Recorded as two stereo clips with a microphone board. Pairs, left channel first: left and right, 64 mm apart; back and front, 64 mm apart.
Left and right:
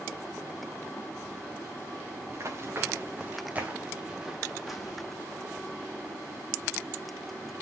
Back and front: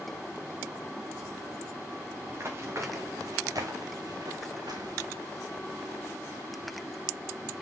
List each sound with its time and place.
2.3 s running footsteps: 50° right, 3.5 m; by 5.0 s 5° left, 3.5 m